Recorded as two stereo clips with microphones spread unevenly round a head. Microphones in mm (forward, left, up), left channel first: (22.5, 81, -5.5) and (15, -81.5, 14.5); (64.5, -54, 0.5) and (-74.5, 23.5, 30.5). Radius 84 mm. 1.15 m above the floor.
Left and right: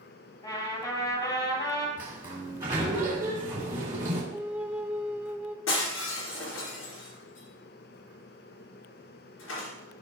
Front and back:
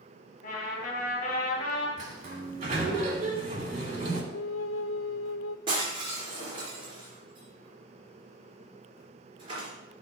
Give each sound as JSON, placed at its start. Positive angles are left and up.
{"t": 0.4, "sound": "a trumpet", "azimuth_deg": 20, "distance_m": 3.0}
{"t": 2.0, "sound": "a sliding door", "azimuth_deg": -165, "distance_m": 3.0}
{"t": 4.3, "sound": "a flute", "azimuth_deg": -15, "distance_m": 0.5}
{"t": 5.7, "sound": "breaking glass", "azimuth_deg": 90, "distance_m": 3.5}